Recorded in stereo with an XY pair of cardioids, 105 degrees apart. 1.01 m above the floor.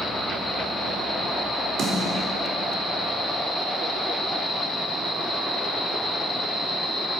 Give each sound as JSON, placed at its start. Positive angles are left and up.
{"t": 1.8, "sound": "a snare drum", "azimuth_deg": -65, "distance_m": 3.0}